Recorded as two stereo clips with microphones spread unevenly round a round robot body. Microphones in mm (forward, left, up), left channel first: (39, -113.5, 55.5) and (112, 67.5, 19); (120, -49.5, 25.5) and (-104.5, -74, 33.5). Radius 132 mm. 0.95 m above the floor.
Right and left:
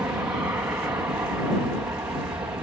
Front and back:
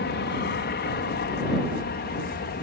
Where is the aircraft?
5° right; by 2.6 s straight ahead.